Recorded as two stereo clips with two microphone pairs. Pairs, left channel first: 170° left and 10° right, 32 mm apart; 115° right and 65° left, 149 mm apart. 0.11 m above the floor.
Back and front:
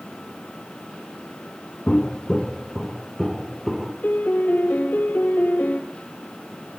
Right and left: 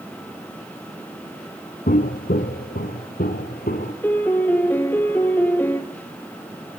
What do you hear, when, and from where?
1.9 s footsteps: 135° right, 0.9 m; by 3.9 s 105° right, 3 m
4.0 s a piano: 165° left, 1.8 m